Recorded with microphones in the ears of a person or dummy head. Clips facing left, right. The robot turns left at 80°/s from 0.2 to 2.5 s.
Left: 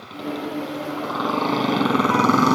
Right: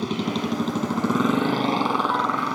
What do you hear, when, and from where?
0.0 s a motorcycle: 65° right; by 2.5 s 110° left